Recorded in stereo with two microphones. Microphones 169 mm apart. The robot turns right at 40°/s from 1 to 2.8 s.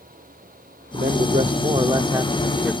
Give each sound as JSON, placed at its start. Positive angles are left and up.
{"t": 0.9, "sound": "a man speaking", "azimuth_deg": -75}